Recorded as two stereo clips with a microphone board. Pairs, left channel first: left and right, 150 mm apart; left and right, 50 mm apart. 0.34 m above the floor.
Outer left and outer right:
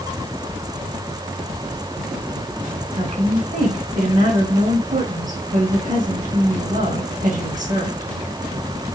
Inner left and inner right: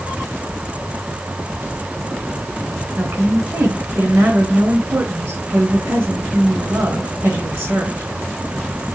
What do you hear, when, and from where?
3.0 s a woman speaking: 60° right (ahead or behind), 4 m